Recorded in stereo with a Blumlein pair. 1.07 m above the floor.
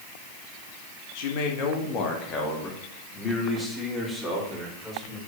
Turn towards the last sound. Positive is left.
turn(degrees=5)